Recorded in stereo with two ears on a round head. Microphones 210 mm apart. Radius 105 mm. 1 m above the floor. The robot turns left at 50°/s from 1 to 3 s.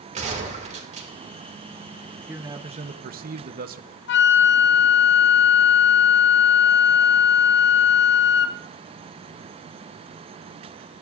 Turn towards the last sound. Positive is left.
turn(degrees=50)  # may be behind; listen again after turning